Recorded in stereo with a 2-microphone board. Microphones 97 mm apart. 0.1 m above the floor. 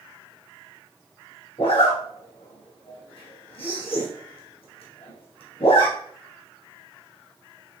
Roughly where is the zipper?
Left.